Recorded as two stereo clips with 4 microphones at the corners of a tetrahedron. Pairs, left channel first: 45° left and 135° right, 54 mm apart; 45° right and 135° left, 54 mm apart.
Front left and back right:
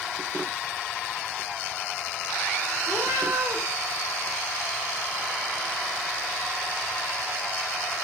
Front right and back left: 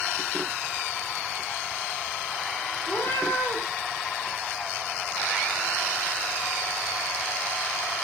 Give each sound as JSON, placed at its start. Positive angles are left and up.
{"t": 2.9, "sound": "a cat meowing", "azimuth_deg": -90, "distance_m": 3.5}